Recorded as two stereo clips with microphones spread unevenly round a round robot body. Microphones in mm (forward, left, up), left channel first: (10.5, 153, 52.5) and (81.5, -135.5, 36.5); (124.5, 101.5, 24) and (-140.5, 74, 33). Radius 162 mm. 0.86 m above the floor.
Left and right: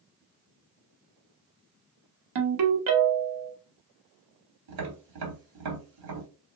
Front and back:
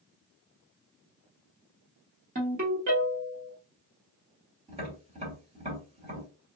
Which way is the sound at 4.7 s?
100° right.